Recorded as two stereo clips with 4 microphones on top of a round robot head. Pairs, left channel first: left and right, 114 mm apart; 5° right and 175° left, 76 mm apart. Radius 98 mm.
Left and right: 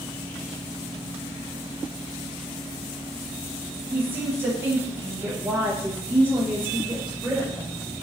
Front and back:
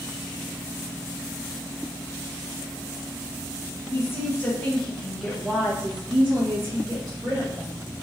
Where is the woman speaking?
30° right, 1.2 m; by 7.8 s 170° right, 1.6 m.